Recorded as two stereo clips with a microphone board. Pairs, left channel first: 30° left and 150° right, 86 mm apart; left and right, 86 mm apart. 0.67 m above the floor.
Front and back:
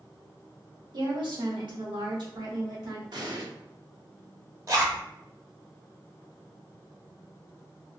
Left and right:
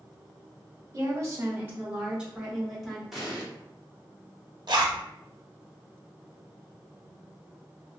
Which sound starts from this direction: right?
A zipper, at 4.7 s.